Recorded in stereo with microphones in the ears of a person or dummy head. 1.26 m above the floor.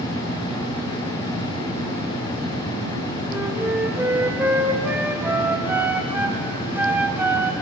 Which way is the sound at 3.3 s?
10° right (ahead or behind).